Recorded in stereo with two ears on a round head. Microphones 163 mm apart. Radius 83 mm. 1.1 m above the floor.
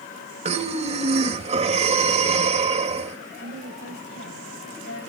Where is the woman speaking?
70° left (ahead or behind), 8 m.